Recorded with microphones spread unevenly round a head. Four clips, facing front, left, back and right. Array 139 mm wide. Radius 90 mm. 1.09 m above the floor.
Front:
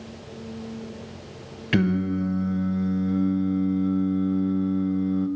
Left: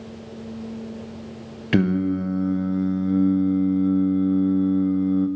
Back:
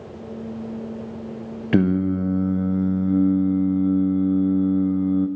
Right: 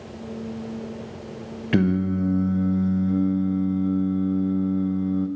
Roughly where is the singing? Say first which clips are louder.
Left 1 dB, back 4 dB; behind.